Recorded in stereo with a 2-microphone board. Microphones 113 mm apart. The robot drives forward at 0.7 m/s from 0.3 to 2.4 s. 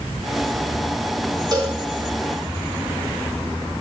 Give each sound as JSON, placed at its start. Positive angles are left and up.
{"t": 1.5, "sound": "a cowbell", "side_deg": -40, "distance_m": 2.0}